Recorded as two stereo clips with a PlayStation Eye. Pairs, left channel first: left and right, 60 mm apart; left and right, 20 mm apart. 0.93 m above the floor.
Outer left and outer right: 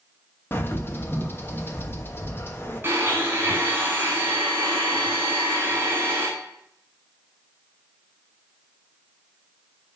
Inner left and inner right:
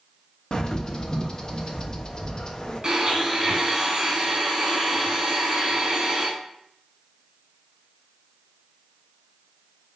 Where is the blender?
35° right (ahead or behind), 4 m.